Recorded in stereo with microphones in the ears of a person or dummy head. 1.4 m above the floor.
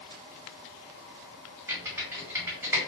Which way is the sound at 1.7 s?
15° right (ahead or behind).